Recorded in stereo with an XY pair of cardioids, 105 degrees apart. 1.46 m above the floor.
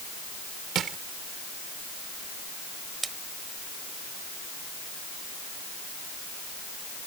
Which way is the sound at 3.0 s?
20° right.